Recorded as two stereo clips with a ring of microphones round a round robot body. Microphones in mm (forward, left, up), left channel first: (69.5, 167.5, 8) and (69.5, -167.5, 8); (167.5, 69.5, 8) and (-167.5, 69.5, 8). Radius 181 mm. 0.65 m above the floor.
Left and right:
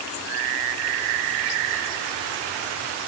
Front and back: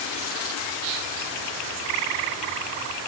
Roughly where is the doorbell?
I don't hear a doorbell.